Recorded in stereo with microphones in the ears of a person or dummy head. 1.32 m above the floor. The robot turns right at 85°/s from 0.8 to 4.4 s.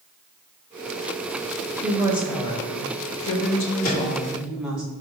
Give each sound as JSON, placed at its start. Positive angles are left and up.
{"t": 1.8, "sound": "a woman speaking", "azimuth_deg": -35, "distance_m": 1.0}
{"t": 3.8, "sound": "a microwave", "side_deg": 85, "distance_m": 1.9}